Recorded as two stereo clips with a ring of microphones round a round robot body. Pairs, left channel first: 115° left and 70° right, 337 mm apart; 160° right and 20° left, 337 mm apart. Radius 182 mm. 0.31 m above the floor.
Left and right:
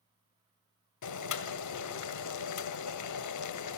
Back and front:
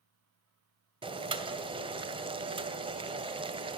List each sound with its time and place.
1.0 s boiling: 95° left, 2 m